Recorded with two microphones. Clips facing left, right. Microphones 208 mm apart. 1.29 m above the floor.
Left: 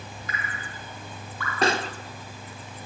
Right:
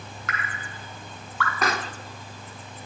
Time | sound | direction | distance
0.3 | dripping | 85° right | 3.5 m
1.6 | a pop | 30° left (ahead or behind) | 1.4 m